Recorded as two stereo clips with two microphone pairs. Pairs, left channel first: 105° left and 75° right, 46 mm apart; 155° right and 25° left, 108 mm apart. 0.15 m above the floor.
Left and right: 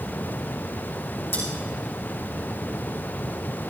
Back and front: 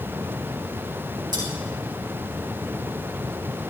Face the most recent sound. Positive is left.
turn(degrees=75)